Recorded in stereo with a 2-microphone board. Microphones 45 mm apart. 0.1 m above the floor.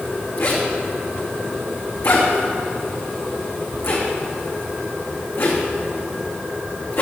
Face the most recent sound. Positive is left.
turn(degrees=65)  # may be behind; listen again after turning